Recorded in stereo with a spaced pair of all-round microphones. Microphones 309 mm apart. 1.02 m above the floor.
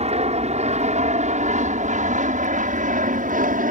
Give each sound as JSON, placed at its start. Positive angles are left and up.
{"t": 0.0, "sound": "an aircraft", "side_deg": -20}